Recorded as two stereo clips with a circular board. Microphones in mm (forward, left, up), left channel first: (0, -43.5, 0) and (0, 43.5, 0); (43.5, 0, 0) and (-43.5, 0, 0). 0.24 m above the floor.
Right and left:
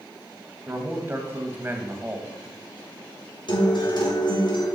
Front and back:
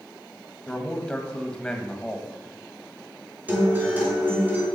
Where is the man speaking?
65° left, 1.1 m.